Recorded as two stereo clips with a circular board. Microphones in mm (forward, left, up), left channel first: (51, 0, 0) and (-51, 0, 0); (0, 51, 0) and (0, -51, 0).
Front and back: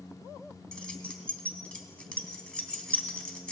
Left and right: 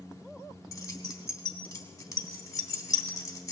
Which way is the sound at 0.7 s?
75° left.